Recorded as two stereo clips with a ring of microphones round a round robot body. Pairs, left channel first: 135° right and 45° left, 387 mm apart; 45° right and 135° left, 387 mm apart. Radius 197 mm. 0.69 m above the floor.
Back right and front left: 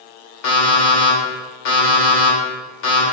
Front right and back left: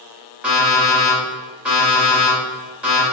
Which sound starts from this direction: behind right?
An alarm clock, at 0.4 s.